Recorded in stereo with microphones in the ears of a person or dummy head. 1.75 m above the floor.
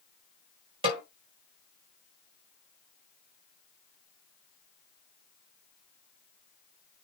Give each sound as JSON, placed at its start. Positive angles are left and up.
{"t": 0.8, "sound": "a snare drum", "side_deg": -25, "distance_m": 2.0}